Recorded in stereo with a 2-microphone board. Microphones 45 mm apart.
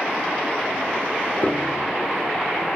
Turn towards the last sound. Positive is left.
turn(degrees=40)  # may be behind; listen again after turning